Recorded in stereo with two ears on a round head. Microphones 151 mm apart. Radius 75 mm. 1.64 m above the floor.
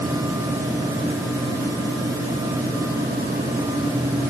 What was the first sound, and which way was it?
Only background noise.